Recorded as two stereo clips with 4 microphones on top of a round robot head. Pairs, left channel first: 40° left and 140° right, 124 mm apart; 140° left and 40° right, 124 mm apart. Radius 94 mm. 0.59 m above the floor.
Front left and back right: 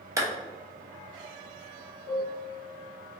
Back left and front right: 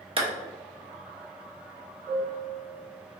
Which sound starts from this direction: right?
A clap, at 0.2 s.